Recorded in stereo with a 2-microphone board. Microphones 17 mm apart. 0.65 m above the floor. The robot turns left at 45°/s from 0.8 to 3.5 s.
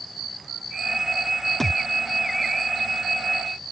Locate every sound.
1.6 s a thud: 20° left (ahead or behind); by 1.8 s 10° left (ahead or behind)